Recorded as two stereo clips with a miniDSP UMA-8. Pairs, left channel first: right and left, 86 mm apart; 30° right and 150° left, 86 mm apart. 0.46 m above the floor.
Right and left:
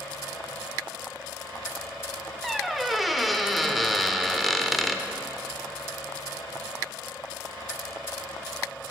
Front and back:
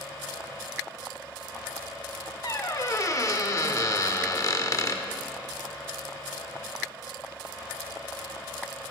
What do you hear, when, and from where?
2.4 s a squeak: straight ahead, 0.7 m